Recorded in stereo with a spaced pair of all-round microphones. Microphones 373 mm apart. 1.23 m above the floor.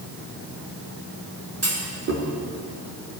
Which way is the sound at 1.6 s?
40° right (ahead or behind).